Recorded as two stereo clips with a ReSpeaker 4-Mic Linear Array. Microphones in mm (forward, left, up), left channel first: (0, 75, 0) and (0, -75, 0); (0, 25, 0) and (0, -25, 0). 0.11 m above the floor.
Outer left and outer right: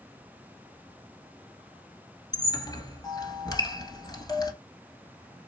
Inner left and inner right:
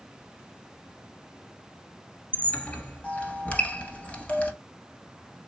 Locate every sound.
2.3 s a squeak: 25° left (ahead or behind), 1.3 m